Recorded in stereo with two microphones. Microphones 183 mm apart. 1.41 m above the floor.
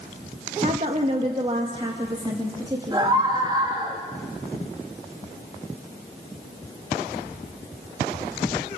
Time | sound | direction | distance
0.6 | a woman speaking | 40° right (ahead or behind) | 2 m
2.9 | a scream | 25° right (ahead or behind) | 3 m